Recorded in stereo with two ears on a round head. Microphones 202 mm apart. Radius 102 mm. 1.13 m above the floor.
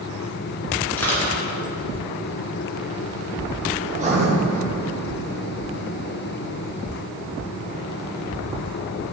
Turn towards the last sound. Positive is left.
turn(degrees=-30)  # may be behind; listen again after turning